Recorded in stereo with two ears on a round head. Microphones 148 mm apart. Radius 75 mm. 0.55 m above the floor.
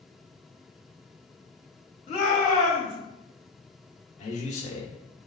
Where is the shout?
35° left (ahead or behind), 1.1 m.